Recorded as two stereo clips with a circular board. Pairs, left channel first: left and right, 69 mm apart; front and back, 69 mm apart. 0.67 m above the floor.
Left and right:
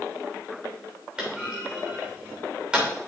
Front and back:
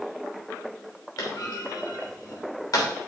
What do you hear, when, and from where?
1.2 s a clunk: 15° right, 3 m